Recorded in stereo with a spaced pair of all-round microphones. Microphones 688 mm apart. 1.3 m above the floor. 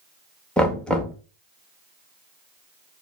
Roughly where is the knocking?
Centre.